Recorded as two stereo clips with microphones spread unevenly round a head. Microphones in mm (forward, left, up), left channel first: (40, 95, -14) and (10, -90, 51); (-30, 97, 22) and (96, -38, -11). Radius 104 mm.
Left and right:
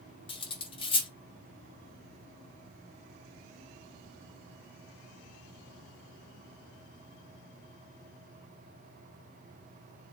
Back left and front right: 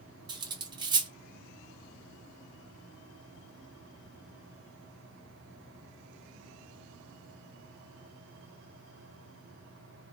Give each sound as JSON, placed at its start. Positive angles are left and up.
{"t": 0.3, "sound": "cutlery clinking", "azimuth_deg": 5, "distance_m": 0.6}